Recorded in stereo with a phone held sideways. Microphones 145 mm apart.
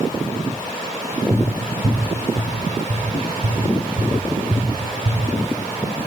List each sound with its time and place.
1.3 s tapping: 85° right, 1.3 m